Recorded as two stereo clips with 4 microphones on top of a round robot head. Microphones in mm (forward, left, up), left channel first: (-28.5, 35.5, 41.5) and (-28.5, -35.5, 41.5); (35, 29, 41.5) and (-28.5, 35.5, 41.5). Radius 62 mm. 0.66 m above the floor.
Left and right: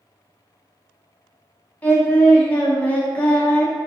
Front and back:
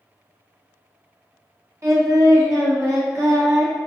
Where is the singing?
150° left, 0.7 m.